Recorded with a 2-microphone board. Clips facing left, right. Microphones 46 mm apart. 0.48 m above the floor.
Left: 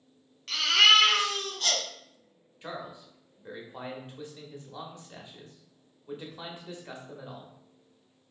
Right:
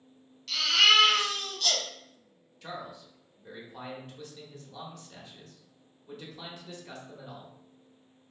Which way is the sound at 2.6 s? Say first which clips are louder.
Left 1 dB; 20° left (ahead or behind).